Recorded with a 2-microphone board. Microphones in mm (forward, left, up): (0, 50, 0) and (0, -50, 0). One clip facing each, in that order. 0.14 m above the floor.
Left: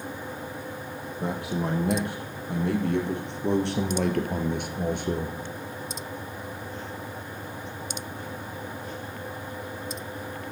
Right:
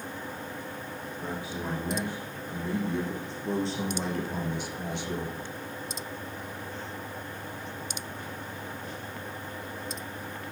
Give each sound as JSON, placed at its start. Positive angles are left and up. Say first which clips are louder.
{"t": 1.2, "sound": "a man speaking", "louder": "left 7 dB", "side_deg": 70, "distance_m": 4.5}